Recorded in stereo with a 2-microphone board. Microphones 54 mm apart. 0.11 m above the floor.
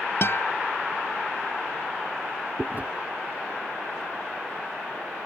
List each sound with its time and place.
0.2 s a guitar: 50° left (ahead or behind)
2.6 s chewing: 30° right (ahead or behind)